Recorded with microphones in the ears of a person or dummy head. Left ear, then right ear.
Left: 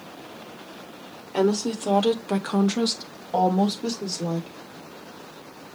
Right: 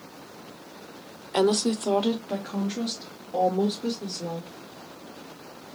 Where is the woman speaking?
30° right (ahead or behind), 0.6 m; by 4.6 s 75° left (ahead or behind), 1.6 m.